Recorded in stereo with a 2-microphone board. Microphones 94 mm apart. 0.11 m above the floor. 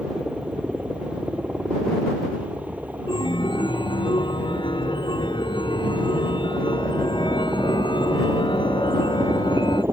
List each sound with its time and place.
0.0 s a helicopter: 10° right (ahead or behind); by 9.9 s 25° right (ahead or behind)
3.1 s a chime: 55° left (ahead or behind)